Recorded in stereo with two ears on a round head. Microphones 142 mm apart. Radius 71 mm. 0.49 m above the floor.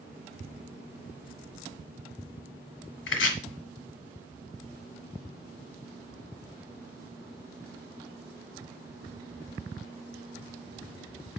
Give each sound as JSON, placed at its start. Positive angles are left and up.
{"t": 3.1, "sound": "chopping", "side_deg": 90, "distance_m": 1.5}